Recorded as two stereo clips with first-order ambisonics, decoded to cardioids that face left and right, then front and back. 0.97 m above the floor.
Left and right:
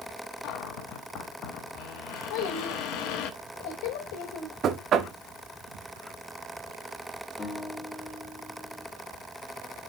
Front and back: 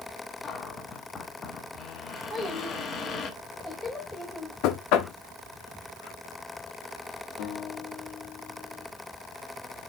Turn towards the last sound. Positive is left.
turn(degrees=15)